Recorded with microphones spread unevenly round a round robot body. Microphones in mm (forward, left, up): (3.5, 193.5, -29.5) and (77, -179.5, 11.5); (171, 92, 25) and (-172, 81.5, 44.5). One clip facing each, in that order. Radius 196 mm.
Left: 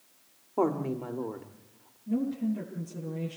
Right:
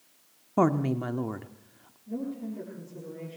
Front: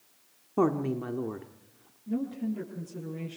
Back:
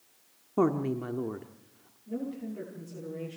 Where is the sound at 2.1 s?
55° left, 9 m.